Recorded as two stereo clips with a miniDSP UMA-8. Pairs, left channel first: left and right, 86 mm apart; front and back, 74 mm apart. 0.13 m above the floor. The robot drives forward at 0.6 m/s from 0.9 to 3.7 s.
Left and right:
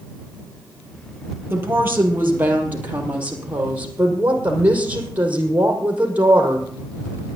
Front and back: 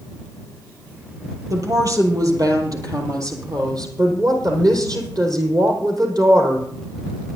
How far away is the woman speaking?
About 3 m.